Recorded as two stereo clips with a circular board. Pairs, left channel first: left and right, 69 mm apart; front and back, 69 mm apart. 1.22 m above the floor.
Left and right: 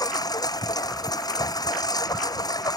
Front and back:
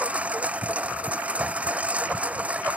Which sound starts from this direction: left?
A lawn mower, at 0.0 s.